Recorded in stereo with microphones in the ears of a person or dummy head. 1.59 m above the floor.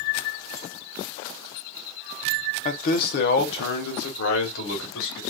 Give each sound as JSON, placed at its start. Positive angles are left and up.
{"t": 2.6, "sound": "a man speaking", "side_deg": 45, "distance_m": 0.7}